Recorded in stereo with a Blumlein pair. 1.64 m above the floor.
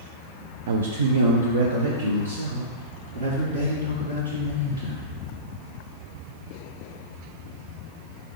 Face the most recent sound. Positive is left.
turn(degrees=-75)